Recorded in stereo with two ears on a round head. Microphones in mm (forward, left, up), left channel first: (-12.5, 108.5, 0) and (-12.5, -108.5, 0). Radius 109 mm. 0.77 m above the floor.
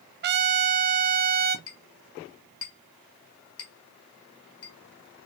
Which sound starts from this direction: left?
A clink, at 1.7 s.